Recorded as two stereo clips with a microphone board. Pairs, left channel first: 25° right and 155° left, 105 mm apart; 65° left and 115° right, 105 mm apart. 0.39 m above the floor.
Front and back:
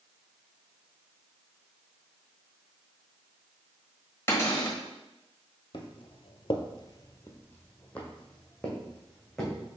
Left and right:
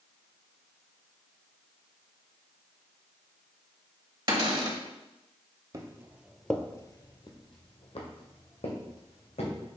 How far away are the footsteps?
About 0.8 m.